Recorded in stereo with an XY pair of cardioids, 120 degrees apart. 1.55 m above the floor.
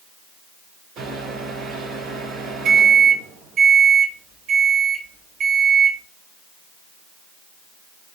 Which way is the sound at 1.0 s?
65° right.